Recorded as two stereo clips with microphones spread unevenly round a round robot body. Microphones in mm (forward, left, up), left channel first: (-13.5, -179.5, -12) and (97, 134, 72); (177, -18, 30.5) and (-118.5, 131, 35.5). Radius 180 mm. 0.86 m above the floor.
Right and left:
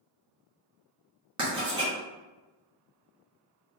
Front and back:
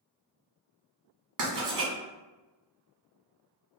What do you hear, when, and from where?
1.4 s writing: 155° left, 1.1 m